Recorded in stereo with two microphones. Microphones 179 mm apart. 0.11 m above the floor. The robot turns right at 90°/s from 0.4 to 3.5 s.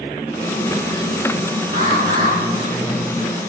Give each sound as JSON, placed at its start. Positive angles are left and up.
{"t": 1.7, "sound": "an alarm", "azimuth_deg": -115, "distance_m": 5.0}